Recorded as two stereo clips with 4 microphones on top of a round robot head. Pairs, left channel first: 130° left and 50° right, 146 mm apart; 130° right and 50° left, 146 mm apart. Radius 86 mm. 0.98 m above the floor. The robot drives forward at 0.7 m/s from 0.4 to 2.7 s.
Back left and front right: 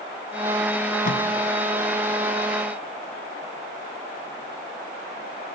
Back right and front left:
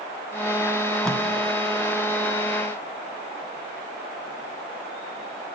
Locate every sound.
1.1 s tape being pulled: 145° left, 1.2 m